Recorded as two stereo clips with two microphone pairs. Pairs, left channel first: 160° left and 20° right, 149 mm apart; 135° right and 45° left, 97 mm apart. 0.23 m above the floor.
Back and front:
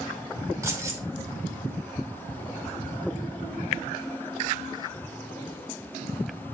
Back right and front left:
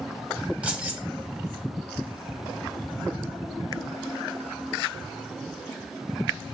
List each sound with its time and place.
0.6 s keys jangling: 5° right, 0.9 m